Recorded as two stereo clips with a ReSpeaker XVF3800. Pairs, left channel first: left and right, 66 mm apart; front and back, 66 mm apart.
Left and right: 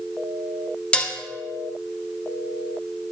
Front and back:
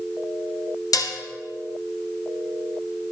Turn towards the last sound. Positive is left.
turn(degrees=15)